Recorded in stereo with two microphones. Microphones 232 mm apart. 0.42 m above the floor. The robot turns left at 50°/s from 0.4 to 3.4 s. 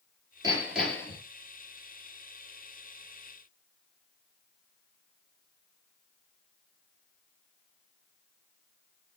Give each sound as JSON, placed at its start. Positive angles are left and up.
{"t": 0.4, "sound": "hammering", "azimuth_deg": -160, "distance_m": 5.5}